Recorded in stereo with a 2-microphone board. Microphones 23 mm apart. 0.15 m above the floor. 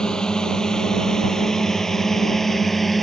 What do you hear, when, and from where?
0.0 s a drone: 35° left (ahead or behind); by 3.0 s 5° left (ahead or behind)